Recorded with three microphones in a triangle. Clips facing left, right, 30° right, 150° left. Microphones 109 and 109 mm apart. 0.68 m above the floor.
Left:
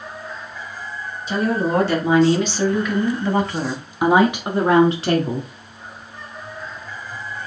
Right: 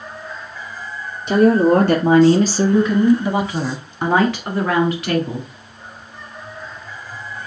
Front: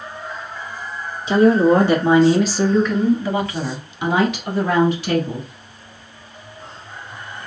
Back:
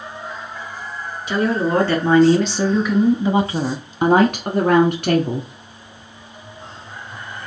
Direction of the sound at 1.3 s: 90° right.